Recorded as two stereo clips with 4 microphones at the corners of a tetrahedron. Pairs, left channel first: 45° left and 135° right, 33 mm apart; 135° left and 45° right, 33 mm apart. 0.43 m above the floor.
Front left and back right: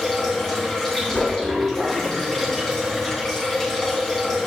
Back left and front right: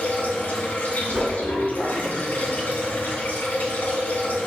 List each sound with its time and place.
0.0 s running water: 120° left, 2.5 m
1.1 s a whoosh: 10° left, 3 m